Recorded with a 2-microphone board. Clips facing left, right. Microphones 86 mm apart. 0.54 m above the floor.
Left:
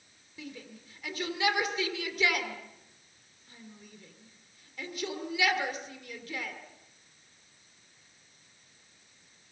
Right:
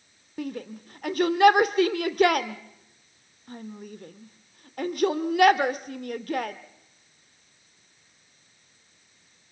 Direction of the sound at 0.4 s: 55° right (ahead or behind).